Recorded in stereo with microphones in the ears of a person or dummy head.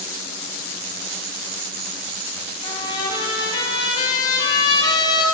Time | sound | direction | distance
2.6 | a trumpet | 25° left (ahead or behind) | 5 m